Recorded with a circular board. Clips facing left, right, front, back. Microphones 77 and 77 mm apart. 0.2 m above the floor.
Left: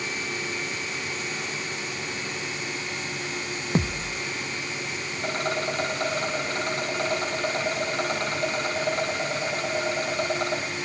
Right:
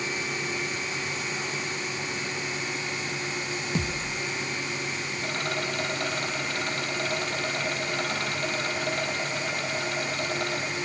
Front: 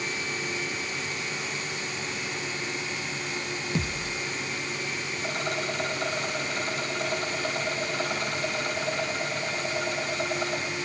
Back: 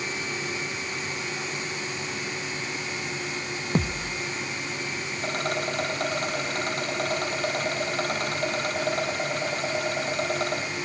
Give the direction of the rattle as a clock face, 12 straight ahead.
7 o'clock.